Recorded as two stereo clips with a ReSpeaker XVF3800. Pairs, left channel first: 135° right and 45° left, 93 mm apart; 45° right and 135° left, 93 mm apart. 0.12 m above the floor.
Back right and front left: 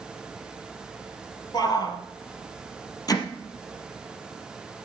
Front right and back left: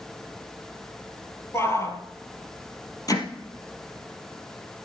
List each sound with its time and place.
1.5 s a shout: 100° right, 2.5 m
3.1 s hammering: 90° right, 3 m